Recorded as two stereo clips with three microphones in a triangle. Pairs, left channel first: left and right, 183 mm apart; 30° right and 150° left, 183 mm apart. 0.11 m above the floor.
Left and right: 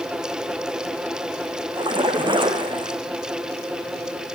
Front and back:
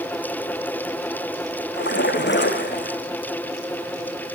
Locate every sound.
1.7 s a splash: 25° right, 2.5 m